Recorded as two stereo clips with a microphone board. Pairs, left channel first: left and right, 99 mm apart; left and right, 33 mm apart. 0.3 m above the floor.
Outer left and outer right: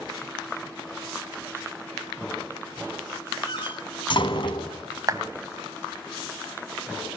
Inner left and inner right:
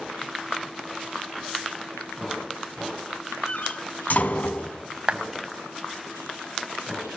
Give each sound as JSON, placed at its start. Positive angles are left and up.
{"t": 3.5, "sound": "a door slam", "side_deg": 55, "distance_m": 2.0}
{"t": 5.1, "sound": "a clap", "side_deg": -35, "distance_m": 1.5}